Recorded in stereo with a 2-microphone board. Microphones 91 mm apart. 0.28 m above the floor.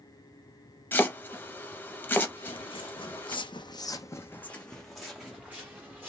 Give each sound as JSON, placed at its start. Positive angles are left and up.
{"t": 0.9, "sound": "chopping", "side_deg": 20, "distance_m": 0.6}
{"t": 2.4, "sound": "footsteps", "side_deg": 70, "distance_m": 1.0}